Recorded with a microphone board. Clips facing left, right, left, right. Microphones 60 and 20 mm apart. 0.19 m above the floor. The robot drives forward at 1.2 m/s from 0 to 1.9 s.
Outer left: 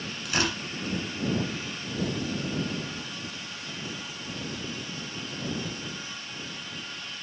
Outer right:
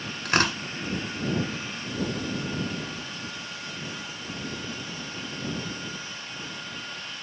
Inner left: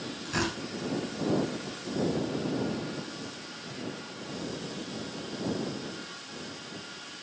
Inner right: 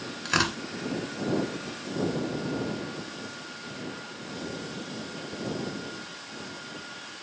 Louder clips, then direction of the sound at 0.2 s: Outer right 5 dB, inner right 6 dB; 50° right (ahead or behind).